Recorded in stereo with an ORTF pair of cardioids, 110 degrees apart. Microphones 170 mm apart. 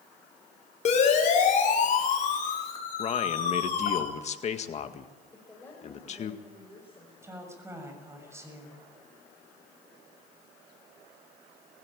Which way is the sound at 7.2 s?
15° right.